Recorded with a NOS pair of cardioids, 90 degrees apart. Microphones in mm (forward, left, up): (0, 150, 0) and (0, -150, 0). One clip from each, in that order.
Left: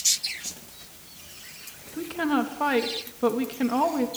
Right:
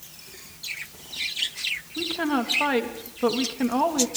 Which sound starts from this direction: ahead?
A woman speaking, at 2.0 s.